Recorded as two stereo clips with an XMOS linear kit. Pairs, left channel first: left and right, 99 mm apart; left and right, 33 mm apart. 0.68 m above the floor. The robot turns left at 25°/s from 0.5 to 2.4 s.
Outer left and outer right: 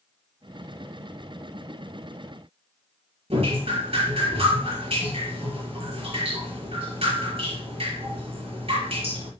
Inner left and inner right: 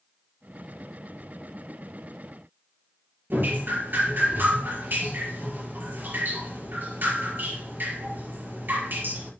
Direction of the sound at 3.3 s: 80° right.